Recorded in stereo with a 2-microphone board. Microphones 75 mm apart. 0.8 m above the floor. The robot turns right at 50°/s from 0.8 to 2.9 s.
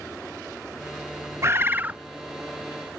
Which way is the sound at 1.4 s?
35° right (ahead or behind).